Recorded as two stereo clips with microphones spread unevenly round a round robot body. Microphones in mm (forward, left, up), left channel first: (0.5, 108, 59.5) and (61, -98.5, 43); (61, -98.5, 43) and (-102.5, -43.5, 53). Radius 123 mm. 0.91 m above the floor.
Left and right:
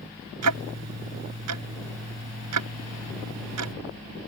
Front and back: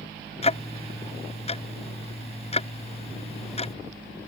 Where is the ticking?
70° right.